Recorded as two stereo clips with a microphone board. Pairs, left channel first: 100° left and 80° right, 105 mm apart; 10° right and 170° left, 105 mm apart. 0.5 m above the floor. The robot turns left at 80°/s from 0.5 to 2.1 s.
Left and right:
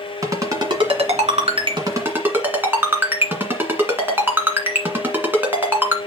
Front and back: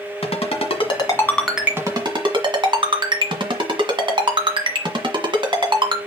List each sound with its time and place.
0.2 s a ringtone: 20° right, 1.6 m; by 6.0 s 150° right, 1.6 m